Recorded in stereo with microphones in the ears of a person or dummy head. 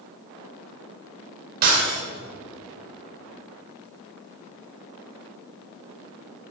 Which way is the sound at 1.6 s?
55° right (ahead or behind).